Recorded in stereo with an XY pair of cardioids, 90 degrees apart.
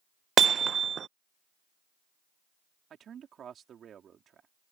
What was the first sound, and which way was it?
Hammering, 60° right.